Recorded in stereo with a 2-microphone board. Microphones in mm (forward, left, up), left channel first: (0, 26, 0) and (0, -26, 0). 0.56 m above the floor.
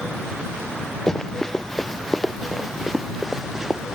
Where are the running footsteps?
10° left (ahead or behind); by 4.0 s 10° right (ahead or behind).